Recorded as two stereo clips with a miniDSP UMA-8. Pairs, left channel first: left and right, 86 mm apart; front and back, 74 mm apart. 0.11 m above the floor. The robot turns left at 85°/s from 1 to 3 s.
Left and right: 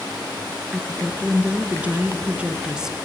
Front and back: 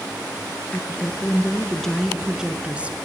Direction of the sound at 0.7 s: Straight ahead.